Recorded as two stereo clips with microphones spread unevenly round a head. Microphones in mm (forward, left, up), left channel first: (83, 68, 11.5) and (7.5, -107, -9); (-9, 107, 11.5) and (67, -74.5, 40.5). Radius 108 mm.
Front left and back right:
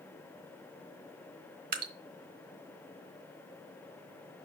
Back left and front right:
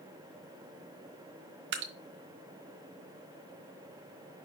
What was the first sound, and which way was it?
Dripping, 75° right.